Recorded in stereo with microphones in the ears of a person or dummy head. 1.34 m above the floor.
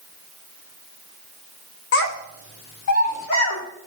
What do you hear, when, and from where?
1.9 s a child speaking: 60° left (ahead or behind), 1.1 m; by 3.6 s 80° left, 3 m